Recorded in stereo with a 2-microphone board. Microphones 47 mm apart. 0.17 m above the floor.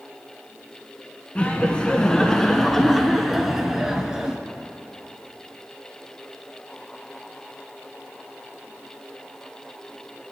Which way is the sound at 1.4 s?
30° left (ahead or behind).